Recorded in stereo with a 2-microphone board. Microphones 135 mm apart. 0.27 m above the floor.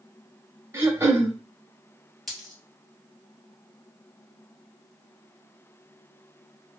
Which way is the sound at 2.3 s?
Centre (ahead or behind).